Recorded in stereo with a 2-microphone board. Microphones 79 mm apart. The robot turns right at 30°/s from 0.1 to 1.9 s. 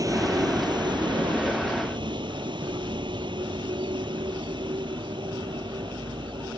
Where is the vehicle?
135° right; by 6.6 s 80° right.